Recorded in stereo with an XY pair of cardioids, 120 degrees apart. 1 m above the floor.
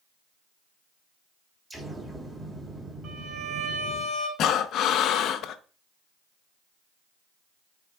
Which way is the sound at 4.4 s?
65° left.